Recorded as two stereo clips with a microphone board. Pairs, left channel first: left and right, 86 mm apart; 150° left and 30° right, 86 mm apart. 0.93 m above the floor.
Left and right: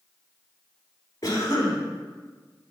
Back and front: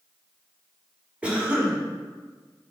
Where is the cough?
45° left, 1.9 m.